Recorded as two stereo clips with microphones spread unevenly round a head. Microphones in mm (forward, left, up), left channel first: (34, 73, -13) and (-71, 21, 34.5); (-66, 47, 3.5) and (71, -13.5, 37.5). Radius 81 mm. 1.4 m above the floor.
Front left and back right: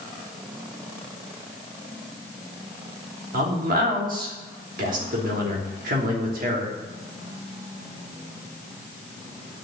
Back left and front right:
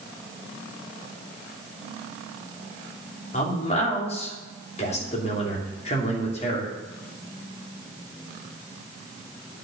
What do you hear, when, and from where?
3.3 s a man speaking: 150° right, 3 m